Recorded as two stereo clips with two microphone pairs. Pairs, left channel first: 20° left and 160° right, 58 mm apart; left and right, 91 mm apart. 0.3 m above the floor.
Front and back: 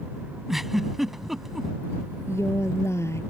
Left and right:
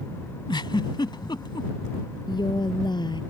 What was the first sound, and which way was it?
A giggle, 110° left.